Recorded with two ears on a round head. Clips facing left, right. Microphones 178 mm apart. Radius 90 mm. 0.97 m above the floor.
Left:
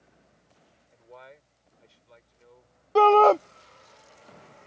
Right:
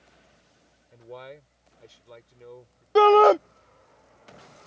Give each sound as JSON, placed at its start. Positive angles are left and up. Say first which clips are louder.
{"t": 0.9, "sound": "a man speaking", "louder": "right 8 dB", "side_deg": -55}
{"t": 3.0, "sound": "a shout", "louder": "right 2 dB", "side_deg": -15}